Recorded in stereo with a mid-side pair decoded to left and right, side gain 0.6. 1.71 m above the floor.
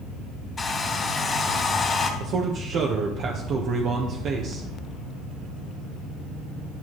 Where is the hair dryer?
30° left, 3 m.